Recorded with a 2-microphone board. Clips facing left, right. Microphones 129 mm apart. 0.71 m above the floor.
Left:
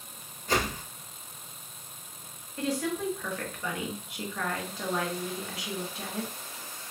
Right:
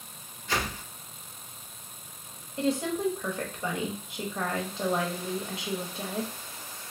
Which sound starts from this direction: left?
A whoosh, at 0.5 s.